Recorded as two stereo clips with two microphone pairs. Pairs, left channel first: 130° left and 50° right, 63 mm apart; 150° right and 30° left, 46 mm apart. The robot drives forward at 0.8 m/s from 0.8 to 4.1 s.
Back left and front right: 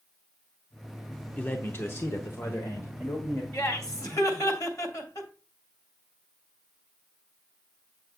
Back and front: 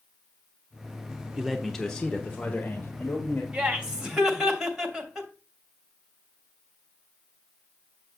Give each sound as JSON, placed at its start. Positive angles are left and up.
{"t": 1.4, "sound": "a man speaking", "azimuth_deg": 100, "distance_m": 0.8}
{"t": 3.5, "sound": "laughter", "azimuth_deg": 100, "distance_m": 2.5}